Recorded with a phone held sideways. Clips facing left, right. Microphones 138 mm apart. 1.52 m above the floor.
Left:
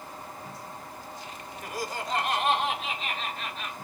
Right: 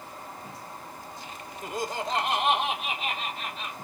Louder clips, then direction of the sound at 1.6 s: Right 3 dB; 25° right (ahead or behind).